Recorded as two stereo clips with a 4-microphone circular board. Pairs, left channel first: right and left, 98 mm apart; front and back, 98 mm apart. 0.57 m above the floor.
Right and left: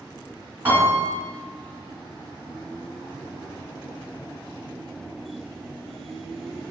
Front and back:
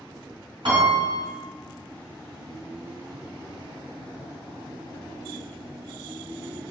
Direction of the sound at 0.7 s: 155° left.